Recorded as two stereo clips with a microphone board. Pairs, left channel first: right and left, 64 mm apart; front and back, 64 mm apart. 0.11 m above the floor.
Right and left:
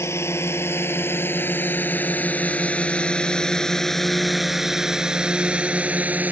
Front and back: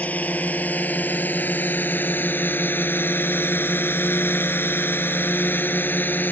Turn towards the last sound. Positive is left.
turn(degrees=40)